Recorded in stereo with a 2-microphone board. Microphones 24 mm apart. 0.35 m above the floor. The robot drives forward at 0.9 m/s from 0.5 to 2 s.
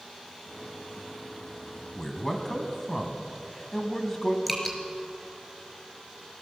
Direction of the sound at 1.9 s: 20° left (ahead or behind).